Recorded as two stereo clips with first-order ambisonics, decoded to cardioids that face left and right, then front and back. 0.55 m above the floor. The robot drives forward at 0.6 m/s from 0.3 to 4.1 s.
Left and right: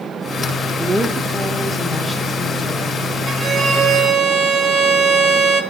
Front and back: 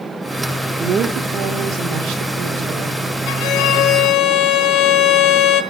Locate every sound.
0.8 s a woman speaking: 160° right, 0.7 m; by 3.0 s 175° right, 1.7 m
3.3 s a violin: 35° right, 1.7 m; by 5.6 s 50° right, 1.3 m